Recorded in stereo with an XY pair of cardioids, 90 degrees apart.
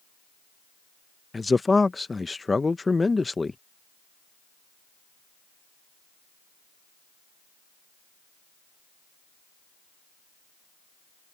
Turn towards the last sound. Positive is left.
turn(degrees=25)